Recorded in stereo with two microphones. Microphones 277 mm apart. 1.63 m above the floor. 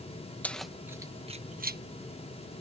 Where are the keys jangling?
5° left (ahead or behind); by 1.8 s 35° right (ahead or behind).